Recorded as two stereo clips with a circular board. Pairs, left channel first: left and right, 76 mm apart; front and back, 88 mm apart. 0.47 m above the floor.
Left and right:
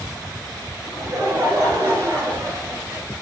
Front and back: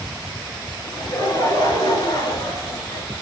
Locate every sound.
0.9 s laughter: 40° right, 8 m; by 3.1 s 30° right, 7.5 m